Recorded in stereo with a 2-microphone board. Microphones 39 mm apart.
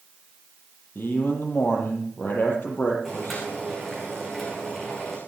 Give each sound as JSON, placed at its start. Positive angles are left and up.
{"t": 0.9, "sound": "a man speaking", "side_deg": 55, "distance_m": 6.0}
{"t": 3.0, "sound": "boiling", "side_deg": 0, "distance_m": 8.5}